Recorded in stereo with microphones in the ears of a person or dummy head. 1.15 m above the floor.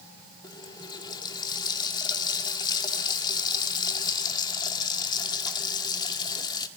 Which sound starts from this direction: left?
A running tap, at 0.4 s.